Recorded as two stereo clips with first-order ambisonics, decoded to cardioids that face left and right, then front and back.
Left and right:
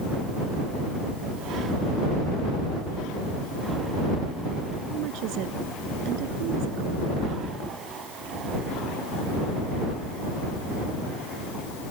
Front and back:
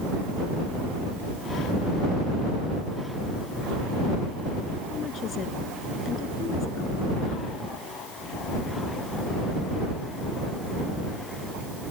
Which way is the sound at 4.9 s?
60° right.